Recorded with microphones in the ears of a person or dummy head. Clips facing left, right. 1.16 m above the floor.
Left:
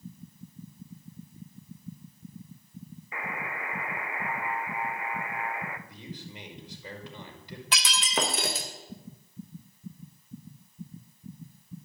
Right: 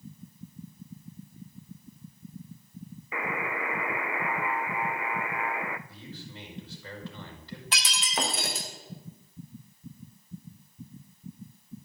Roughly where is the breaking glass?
Left.